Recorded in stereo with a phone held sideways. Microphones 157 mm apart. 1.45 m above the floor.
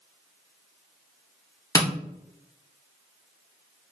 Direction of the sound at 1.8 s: 25° left (ahead or behind).